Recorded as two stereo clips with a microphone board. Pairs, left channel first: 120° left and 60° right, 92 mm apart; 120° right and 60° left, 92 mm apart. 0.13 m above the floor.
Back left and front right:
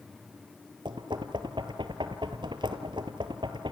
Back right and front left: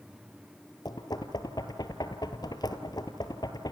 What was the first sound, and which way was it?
Knocking, 85° right.